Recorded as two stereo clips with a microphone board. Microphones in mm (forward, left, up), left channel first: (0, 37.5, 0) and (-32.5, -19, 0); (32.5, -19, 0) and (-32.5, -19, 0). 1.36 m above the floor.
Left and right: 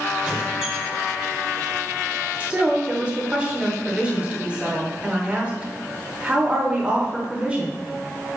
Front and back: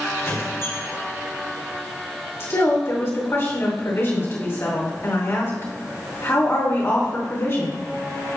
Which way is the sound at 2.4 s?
45° right.